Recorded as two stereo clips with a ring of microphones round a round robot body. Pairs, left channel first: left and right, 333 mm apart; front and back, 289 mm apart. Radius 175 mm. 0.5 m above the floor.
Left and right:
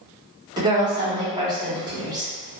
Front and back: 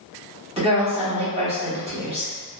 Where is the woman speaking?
150° right, 1.1 m.